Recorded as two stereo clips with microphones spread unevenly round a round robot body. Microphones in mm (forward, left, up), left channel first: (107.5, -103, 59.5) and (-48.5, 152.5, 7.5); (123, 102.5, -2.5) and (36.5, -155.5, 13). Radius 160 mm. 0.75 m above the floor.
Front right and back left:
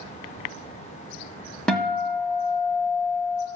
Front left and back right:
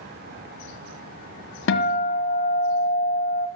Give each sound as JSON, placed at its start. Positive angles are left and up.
{"t": 1.7, "sound": "a guitar", "azimuth_deg": 25, "distance_m": 1.3}